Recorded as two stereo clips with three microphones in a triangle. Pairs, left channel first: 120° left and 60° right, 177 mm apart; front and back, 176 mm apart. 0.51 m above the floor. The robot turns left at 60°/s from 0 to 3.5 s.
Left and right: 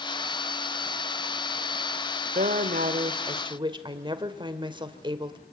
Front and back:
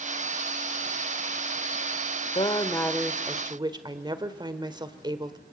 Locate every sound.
2.4 s a woman speaking: 50° right, 1.7 m; by 5.4 s 120° right, 1.7 m